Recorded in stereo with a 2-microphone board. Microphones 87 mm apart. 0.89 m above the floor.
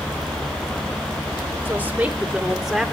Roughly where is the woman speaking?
Right.